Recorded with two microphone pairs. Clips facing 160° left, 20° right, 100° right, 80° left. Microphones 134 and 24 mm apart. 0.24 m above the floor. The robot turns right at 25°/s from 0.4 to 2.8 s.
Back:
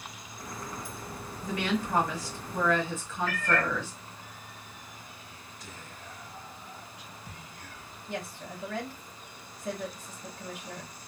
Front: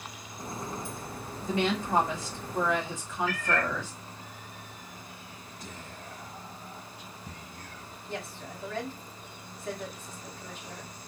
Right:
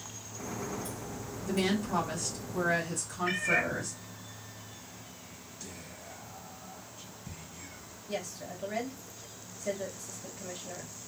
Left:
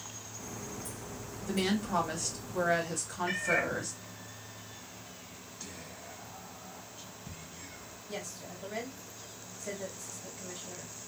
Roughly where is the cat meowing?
Behind.